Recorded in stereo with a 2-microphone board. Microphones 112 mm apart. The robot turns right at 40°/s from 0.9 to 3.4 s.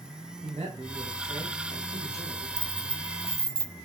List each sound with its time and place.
0.4 s a man speaking: 120° right, 3 m; by 2.5 s 55° right, 3 m
2.6 s keys jangling: 70° right, 0.7 m; by 3.7 s 40° right, 0.7 m